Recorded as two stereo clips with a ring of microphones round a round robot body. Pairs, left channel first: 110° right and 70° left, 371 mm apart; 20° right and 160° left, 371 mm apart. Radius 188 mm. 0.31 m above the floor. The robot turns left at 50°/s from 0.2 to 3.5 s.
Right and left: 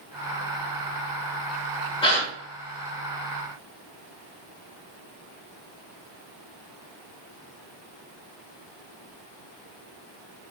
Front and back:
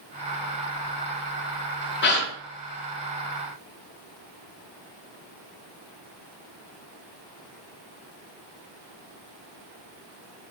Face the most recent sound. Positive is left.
turn(degrees=-120)